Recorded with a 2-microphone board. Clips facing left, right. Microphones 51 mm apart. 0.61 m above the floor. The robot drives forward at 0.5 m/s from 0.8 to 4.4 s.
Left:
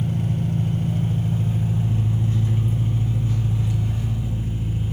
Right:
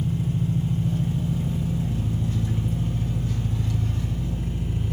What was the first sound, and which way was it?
An engine running, 55° left (ahead or behind).